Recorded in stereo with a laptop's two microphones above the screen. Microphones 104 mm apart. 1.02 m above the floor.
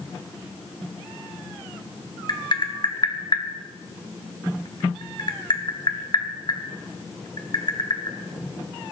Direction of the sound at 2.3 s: 45° left (ahead or behind).